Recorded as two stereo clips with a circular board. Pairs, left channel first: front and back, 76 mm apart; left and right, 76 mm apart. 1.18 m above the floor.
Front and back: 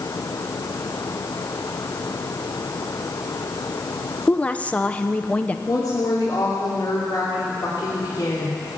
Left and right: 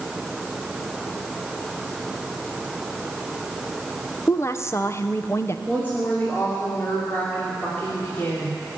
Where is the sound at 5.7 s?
25° left, 2.5 m.